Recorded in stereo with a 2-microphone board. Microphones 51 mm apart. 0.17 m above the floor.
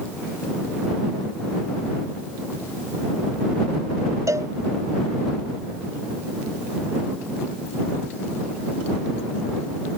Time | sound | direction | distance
4.3 | a cowbell | 80° right | ?